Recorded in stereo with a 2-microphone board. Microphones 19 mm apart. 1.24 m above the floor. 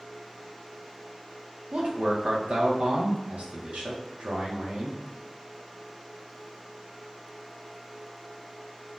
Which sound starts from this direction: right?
A man speaking, at 1.7 s.